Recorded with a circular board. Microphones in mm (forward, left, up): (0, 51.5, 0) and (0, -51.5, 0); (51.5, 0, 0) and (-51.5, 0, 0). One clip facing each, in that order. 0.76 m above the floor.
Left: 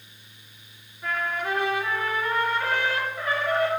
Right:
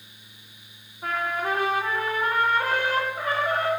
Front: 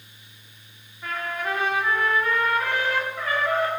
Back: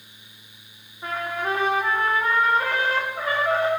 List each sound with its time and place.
1.0 s a trumpet: 125° right, 1.9 m